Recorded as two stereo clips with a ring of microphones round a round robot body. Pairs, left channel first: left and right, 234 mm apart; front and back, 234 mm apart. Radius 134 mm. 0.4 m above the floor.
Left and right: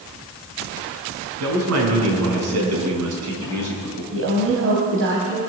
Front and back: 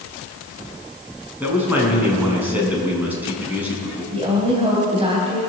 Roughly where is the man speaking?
Right.